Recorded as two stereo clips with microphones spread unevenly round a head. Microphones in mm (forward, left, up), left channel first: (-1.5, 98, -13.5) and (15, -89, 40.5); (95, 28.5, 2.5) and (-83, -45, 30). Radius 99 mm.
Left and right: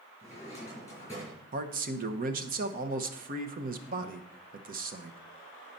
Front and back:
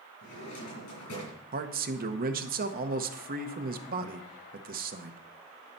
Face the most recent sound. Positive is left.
turn(degrees=-130)